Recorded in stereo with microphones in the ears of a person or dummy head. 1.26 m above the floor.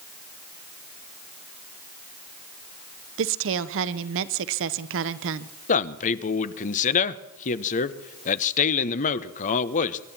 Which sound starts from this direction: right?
A woman speaking, at 3.2 s.